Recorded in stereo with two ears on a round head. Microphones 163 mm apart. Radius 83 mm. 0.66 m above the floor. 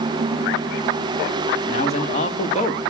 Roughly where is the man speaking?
Left.